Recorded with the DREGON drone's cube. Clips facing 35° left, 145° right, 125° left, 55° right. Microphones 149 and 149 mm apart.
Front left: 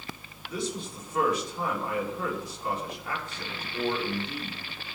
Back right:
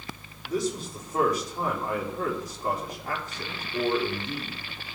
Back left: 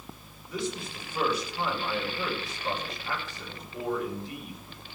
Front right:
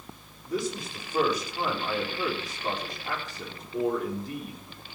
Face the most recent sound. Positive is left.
turn(degrees=-100)